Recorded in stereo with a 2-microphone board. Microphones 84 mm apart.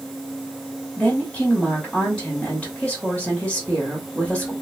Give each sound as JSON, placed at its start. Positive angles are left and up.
{"t": 1.0, "sound": "a woman speaking", "side_deg": 15, "distance_m": 1.1}